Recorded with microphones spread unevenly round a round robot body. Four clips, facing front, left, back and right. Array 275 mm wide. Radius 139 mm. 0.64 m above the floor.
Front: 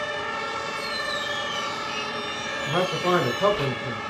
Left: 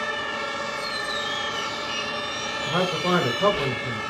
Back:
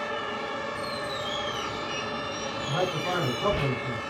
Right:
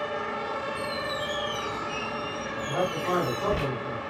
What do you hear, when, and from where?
0.8 s a squeak: 130° right, 2 m
2.7 s a man speaking: 40° left, 2.5 m